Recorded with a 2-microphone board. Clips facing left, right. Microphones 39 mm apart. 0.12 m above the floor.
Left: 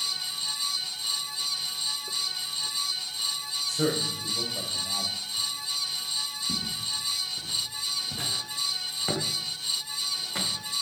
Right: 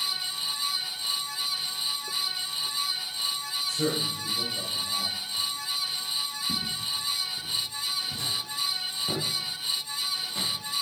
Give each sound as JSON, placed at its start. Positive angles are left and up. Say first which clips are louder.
{"t": 3.7, "sound": "a man speaking", "louder": "left 1 dB", "side_deg": 55, "distance_m": 4.5}
{"t": 6.5, "sound": "footsteps", "louder": "right 1 dB", "side_deg": 5, "distance_m": 3.0}